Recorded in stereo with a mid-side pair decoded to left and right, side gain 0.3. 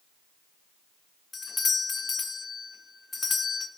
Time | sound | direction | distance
1.3 | a doorbell | 45° left | 0.7 m